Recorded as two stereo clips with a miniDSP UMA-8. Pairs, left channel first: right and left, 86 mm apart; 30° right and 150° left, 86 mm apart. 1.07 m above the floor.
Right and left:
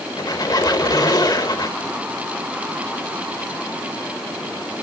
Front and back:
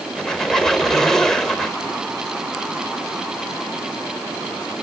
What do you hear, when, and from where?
0.2 s a squeak: 115° right, 1.3 m